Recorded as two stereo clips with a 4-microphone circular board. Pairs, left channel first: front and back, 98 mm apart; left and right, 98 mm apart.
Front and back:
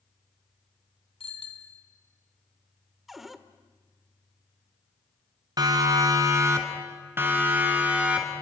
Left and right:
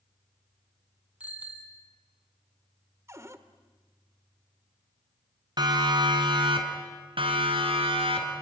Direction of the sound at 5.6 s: 130° right.